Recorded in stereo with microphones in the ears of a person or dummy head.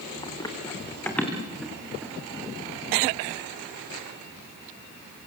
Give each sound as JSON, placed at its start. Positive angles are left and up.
{"t": 0.2, "sound": "running footsteps", "side_deg": 25, "distance_m": 5.0}